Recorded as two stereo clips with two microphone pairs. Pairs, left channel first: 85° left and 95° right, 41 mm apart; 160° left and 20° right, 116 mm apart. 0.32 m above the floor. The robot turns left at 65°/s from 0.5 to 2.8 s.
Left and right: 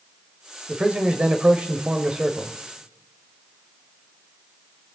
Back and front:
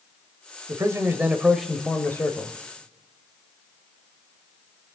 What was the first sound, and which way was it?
A man speaking, 45° right.